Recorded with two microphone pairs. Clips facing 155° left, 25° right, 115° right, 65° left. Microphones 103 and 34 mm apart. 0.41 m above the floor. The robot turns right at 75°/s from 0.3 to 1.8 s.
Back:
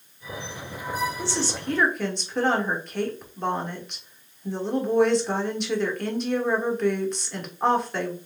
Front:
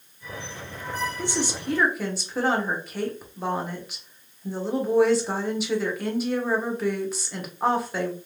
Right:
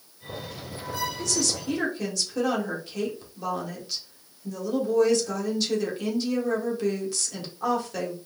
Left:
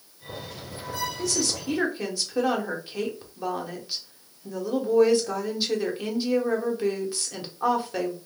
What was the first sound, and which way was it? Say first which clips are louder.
A woman speaking: front 1 dB, even; straight ahead.